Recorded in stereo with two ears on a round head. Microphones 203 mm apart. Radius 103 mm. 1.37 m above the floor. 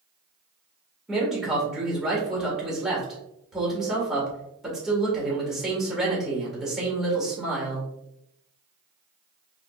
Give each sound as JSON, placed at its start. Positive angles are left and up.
{"t": 1.1, "sound": "a man speaking", "side_deg": 0, "distance_m": 1.7}